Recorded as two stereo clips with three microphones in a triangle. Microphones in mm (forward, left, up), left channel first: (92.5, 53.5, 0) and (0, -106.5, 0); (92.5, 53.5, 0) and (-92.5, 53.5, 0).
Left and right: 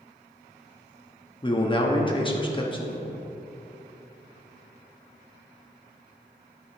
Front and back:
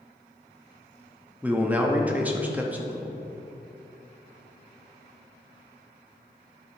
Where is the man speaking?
105° left, 0.9 m.